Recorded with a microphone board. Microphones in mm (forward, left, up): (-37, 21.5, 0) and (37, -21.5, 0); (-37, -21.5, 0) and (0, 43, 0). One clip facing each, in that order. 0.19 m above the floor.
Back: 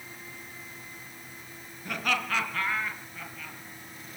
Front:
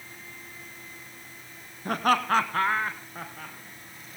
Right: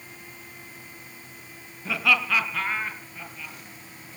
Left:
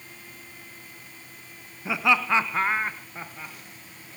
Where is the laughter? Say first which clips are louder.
Front 7 dB, left 1 dB; 5° right, 1.8 m; by 3.5 s 15° left, 3.5 m.